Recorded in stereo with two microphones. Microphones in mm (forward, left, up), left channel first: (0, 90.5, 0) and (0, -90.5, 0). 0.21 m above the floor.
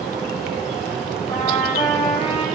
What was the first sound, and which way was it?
A trumpet, 30° left (ahead or behind).